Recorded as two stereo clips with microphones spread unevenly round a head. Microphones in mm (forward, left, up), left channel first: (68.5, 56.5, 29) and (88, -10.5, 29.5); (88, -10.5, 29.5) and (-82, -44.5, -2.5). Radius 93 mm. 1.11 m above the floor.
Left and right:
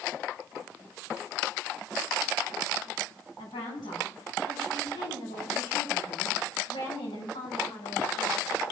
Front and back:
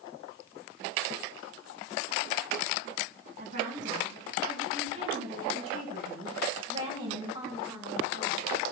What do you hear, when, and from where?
3.4 s a woman speaking: 140° left, 8.5 m; by 8.5 s 120° left, 6 m